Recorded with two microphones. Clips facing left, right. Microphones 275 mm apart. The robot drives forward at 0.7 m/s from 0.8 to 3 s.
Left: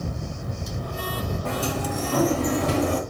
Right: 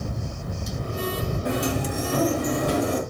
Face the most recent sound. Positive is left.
turn(degrees=-10)  # may be behind; listen again after turning